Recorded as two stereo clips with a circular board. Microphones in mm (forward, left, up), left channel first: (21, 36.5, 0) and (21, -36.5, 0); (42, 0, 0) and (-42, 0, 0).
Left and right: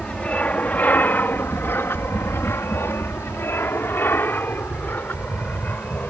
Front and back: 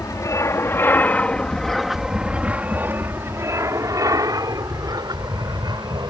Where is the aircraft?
25° left; by 6.1 s 155° left.